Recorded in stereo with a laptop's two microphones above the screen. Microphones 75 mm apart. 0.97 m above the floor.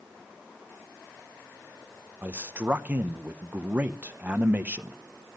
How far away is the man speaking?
About 0.7 m.